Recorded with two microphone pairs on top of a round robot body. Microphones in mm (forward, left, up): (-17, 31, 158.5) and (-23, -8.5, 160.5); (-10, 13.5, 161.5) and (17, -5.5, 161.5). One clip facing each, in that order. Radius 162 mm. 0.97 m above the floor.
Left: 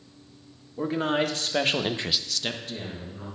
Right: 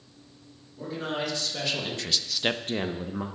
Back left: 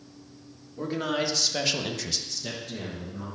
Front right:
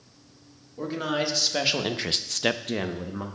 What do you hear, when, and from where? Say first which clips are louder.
0.8 s a man speaking: left 6 dB, front right 1 dB; 55° left, 1.8 m; by 3.3 s 85° right, 1.1 m